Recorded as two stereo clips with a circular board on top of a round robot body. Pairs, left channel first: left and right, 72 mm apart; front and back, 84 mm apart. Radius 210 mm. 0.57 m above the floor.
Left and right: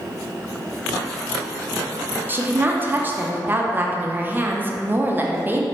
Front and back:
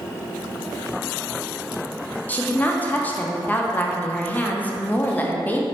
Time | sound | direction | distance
2.3 | a woman speaking | 55° right | 0.7 m